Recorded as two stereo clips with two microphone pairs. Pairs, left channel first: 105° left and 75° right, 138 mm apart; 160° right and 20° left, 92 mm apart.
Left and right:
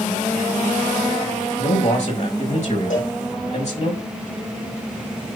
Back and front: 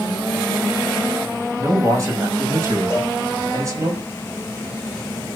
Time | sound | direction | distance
1.6 | a man speaking | 70° left | 4.5 m
2.9 | a cowbell | 95° left | 8 m